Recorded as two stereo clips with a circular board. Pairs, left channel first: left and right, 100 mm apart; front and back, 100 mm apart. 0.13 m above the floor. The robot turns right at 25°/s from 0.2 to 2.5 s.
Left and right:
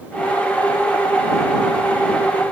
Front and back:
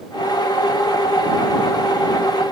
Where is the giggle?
No giggle in this recording.